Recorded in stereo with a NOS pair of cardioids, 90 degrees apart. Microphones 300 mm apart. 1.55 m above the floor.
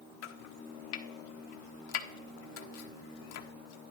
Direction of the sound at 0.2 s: 65° left.